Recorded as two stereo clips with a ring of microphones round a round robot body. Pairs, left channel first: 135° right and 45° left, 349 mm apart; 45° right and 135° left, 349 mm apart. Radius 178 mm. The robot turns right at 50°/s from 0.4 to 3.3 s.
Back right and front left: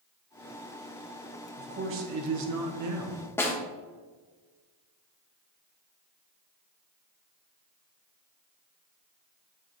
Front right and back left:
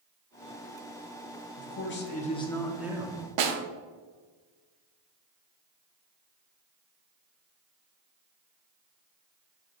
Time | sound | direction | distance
1.6 | a man speaking | 15° right | 0.8 m
3.4 | a snare drum | 140° left | 0.9 m